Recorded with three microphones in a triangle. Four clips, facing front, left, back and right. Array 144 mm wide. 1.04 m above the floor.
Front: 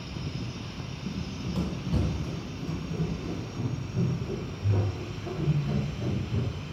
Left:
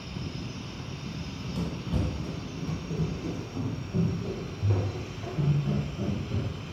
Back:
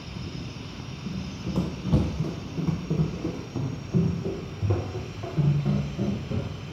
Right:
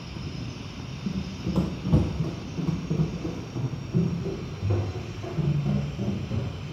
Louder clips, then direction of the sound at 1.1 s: Right 9 dB, back 2 dB; 90° right.